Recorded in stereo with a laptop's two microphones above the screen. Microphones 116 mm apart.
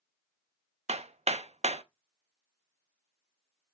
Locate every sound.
0.9 s hammering: 65° right (ahead or behind), 0.6 m